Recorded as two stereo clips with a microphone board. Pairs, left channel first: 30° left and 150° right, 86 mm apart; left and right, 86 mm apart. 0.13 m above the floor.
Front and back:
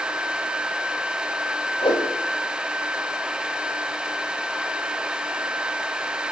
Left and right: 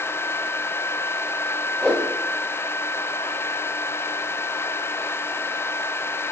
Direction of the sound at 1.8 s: 5° left.